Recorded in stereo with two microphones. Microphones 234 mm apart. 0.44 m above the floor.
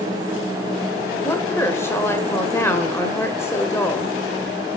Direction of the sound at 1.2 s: 10° left (ahead or behind).